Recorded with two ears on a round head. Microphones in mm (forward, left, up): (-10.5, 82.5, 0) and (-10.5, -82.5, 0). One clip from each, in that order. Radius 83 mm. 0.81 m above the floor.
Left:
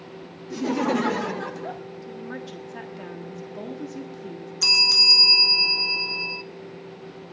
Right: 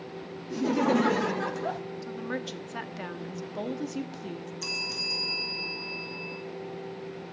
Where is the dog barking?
No dog barking in this recording.